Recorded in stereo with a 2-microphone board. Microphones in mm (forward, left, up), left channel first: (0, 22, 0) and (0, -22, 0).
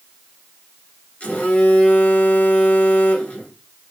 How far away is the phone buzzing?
About 1.4 m.